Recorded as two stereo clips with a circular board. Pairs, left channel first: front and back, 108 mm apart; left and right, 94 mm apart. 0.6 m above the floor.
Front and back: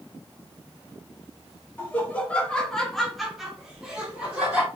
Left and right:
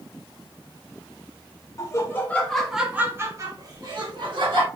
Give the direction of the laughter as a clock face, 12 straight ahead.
10 o'clock.